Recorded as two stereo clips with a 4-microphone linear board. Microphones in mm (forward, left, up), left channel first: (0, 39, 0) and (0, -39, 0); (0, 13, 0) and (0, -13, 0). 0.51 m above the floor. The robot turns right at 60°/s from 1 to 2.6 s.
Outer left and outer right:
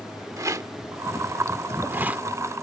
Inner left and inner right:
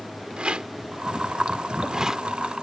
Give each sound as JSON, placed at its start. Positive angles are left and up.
{"t": 0.4, "sound": "a rattle", "side_deg": -45}